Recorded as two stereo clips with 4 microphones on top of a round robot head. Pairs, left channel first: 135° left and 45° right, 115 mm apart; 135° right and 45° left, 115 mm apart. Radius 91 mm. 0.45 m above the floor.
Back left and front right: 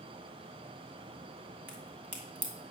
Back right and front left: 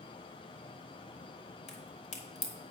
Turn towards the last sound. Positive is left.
turn(degrees=-120)